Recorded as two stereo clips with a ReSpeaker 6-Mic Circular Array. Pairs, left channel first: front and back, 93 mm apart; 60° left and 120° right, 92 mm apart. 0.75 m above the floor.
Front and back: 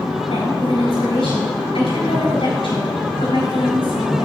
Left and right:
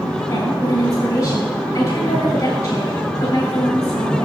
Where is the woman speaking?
20° left, 4 m.